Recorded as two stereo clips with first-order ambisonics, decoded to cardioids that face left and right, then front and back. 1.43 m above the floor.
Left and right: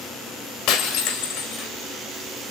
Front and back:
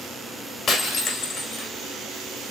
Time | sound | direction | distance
0.7 | breaking glass | 65° left | 2 m